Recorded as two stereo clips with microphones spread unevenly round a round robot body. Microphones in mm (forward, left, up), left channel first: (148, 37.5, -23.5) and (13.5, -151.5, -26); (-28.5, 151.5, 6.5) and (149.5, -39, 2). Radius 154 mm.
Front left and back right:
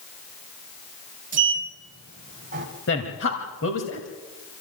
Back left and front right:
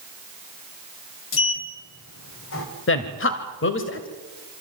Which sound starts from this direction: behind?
A sliding door, at 1.3 s.